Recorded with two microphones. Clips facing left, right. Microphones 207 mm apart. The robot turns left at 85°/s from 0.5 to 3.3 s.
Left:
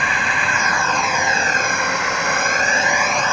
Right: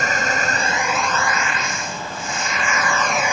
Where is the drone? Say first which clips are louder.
Right 2 dB; 135° right; by 3.3 s 15° right.